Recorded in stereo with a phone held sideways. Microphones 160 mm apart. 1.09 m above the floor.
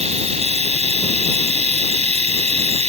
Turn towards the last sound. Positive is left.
turn(degrees=-40)  # may be behind; listen again after turning